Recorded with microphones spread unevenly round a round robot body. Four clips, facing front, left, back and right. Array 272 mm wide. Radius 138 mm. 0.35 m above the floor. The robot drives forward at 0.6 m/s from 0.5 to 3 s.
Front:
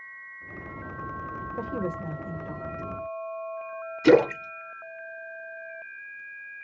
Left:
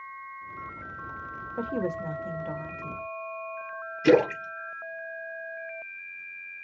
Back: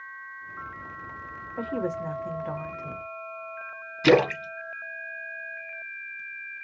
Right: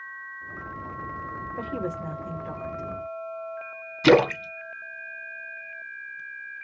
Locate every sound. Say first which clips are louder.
1.6 s a woman speaking: left 3 dB, back 3 dB; 80° left, 0.8 m; by 3.0 s 160° left, 1.2 m
4.0 s a splash: right 2 dB, front 1 dB; 120° right, 1.1 m